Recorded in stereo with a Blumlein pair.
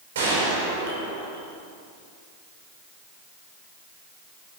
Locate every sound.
0.1 s a gunshot: 60° right, 5 m